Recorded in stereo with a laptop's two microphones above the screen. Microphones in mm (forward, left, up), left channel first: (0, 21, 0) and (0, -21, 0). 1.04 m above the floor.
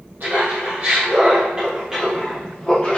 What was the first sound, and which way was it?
Laughter, 55° right (ahead or behind).